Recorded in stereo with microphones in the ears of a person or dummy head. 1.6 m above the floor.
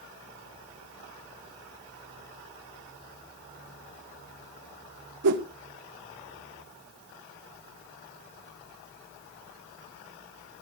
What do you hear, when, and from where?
5.2 s a whoosh: 60° right (ahead or behind), 2.0 m